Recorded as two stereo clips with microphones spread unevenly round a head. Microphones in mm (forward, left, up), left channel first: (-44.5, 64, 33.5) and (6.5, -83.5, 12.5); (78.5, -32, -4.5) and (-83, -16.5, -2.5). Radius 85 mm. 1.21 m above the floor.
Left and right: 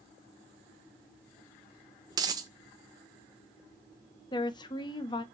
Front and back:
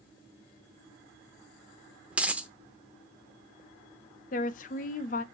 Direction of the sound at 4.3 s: 45° left.